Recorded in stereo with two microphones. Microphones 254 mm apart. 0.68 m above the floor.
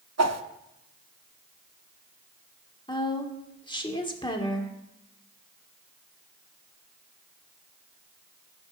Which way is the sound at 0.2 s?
85° right.